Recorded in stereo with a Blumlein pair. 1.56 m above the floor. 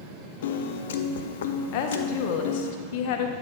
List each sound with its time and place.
0.4 s a piano: 60° left, 0.5 m
1.7 s a woman speaking: 45° left, 0.9 m